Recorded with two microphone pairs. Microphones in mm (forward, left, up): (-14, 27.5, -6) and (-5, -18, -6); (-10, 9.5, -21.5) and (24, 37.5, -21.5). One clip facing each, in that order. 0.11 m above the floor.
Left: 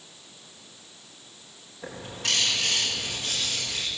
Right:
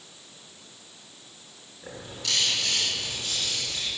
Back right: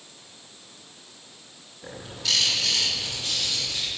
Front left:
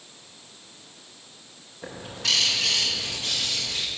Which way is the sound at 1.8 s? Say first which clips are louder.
Left 3 dB, front left 2 dB; 50° left.